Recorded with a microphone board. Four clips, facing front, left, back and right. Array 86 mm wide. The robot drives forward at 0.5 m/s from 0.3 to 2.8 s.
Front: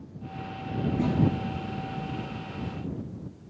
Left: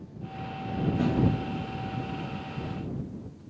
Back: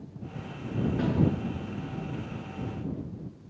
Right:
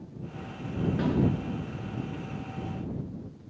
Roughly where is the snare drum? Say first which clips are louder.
Left 1 dB, front 3 dB; right.